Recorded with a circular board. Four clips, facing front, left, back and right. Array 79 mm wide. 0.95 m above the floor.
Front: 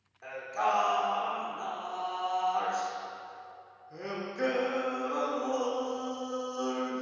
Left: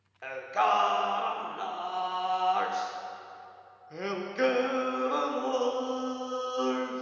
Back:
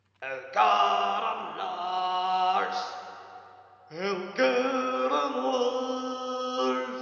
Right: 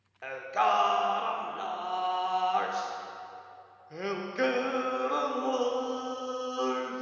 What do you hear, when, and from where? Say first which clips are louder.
0.2 s singing: even, back 6 dB; straight behind, 0.6 m